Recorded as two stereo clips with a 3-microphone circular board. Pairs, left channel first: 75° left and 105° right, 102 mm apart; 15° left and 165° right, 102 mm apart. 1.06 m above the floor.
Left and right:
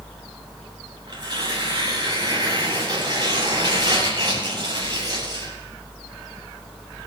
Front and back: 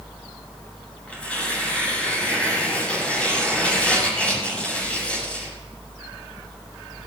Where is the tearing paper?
65° right, 7.5 m.